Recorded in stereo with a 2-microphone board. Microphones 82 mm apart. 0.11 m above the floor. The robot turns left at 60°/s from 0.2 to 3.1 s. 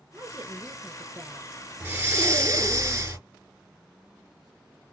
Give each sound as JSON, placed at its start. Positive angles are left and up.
{"t": 0.1, "sound": "a woman speaking", "side_deg": -25, "distance_m": 1.2}
{"t": 1.8, "sound": "breathing", "azimuth_deg": -40, "distance_m": 1.9}